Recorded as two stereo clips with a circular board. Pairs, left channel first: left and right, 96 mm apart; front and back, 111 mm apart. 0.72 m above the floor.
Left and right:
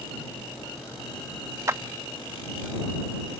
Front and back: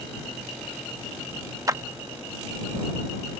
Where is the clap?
135° right.